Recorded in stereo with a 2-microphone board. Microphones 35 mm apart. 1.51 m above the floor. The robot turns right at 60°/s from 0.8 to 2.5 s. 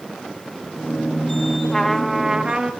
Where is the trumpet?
165° left, 1.4 m; by 2.7 s 150° right, 1.4 m.